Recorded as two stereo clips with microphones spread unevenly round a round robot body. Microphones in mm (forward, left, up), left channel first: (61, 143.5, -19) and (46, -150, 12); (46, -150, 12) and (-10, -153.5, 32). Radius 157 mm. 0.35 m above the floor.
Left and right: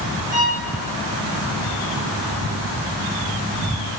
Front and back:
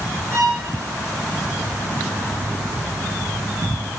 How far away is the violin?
About 7 m.